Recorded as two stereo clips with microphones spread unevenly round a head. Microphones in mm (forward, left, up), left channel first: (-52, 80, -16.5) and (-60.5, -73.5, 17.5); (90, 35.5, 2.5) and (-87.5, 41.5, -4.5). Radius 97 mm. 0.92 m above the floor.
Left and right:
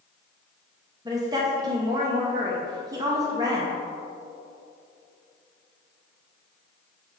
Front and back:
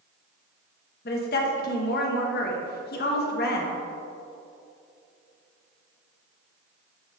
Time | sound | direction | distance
1.1 | a woman speaking | 20° right | 1.0 m